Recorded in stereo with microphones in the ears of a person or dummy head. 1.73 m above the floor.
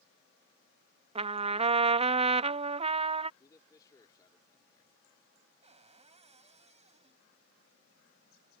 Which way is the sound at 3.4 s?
20° left (ahead or behind).